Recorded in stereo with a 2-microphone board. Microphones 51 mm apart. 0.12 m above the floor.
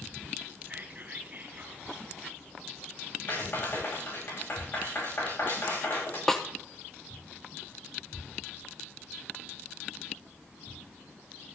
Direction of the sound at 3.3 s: 45° left (ahead or behind).